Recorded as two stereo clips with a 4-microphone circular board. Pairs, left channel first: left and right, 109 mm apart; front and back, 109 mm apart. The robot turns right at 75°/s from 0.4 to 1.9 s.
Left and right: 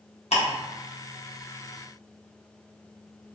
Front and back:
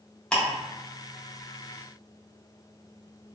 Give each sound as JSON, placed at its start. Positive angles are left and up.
{"t": 0.3, "sound": "ticking", "azimuth_deg": 80, "distance_m": 1.1}